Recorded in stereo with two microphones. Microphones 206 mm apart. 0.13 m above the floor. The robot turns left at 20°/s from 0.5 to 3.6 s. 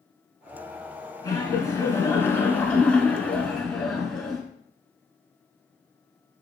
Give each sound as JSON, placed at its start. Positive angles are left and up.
{"t": 1.2, "sound": "laughter", "side_deg": 20, "distance_m": 1.1}